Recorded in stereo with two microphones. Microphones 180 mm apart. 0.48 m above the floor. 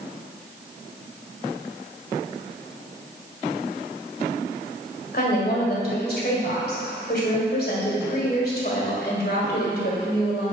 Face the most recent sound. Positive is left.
turn(degrees=60)  # may be behind; listen again after turning